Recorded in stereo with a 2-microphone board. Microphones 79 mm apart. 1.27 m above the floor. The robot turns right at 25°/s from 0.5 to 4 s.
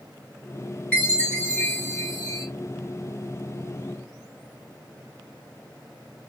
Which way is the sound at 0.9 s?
20° left.